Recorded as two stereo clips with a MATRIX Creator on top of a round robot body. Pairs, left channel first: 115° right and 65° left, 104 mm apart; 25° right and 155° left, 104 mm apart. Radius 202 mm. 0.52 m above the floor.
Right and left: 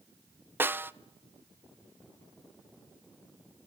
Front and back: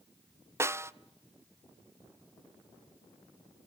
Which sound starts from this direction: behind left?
A snare drum, at 0.6 s.